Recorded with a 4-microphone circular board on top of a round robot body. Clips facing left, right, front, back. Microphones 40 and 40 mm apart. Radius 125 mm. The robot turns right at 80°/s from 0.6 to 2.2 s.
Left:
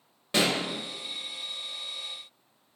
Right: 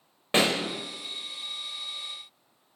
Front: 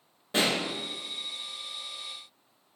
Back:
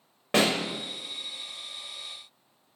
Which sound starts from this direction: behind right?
A pop, at 0.3 s.